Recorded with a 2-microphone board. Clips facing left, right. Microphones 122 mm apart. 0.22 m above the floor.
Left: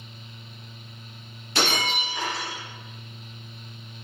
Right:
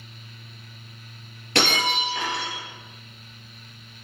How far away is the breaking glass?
About 3 m.